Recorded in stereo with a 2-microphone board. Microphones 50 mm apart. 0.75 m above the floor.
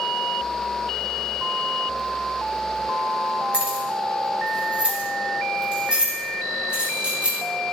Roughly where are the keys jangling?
Right.